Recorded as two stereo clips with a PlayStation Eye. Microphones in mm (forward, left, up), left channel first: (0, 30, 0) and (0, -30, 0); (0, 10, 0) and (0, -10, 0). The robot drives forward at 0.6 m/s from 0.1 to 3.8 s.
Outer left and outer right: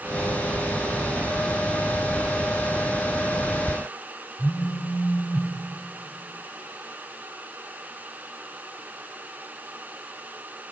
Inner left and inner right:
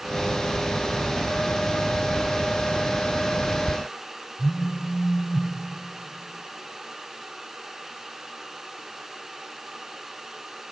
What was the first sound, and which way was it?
A phone buzzing, 25° left (ahead or behind).